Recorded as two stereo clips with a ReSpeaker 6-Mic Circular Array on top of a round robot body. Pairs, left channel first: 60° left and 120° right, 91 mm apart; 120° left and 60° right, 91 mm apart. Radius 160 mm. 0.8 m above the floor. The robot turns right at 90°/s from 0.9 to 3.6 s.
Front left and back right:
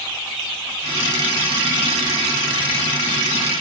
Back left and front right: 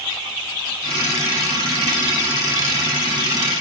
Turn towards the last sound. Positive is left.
No sound to turn to.